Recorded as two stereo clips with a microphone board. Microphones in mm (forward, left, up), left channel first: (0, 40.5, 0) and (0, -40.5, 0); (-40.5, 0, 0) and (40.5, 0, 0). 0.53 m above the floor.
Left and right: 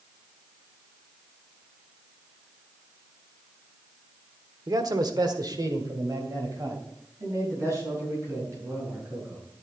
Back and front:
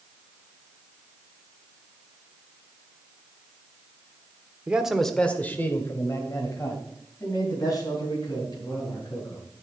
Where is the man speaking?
70° right, 1.3 m; by 9.4 s 145° right, 6.5 m.